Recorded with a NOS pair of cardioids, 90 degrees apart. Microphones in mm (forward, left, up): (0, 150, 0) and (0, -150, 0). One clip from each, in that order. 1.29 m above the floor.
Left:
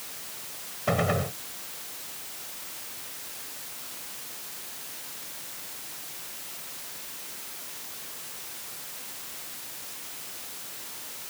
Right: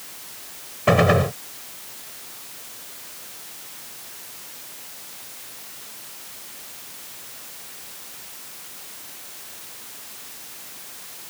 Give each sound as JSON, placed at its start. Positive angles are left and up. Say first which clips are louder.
{"t": 0.9, "sound": "a gunshot", "louder": "right 9 dB", "azimuth_deg": -60}